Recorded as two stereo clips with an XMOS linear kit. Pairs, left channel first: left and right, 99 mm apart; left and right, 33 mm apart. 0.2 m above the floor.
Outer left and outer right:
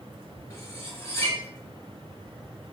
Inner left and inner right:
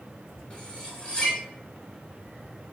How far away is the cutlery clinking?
About 1.5 m.